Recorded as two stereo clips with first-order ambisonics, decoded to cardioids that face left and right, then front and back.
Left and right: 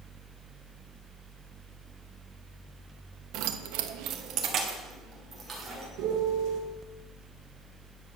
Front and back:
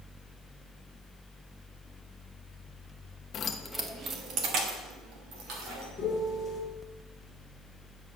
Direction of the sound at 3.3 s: 60° right.